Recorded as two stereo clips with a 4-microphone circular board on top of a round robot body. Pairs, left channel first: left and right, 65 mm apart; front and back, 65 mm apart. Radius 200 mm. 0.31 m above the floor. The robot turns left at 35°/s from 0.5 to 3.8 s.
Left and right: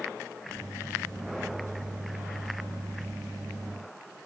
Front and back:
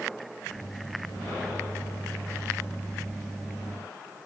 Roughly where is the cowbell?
I don't hear a cowbell.